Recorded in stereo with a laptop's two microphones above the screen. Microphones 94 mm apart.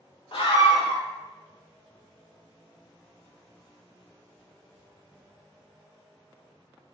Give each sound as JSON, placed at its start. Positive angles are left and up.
{"t": 0.3, "sound": "a scream", "side_deg": 60, "distance_m": 0.6}